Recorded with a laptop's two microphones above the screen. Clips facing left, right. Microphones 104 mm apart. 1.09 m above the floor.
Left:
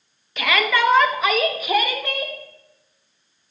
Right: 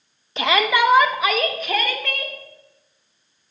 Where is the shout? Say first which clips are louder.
Right 2 dB; 30° right (ahead or behind), 1.4 m; by 2.4 s 20° left (ahead or behind), 2.5 m.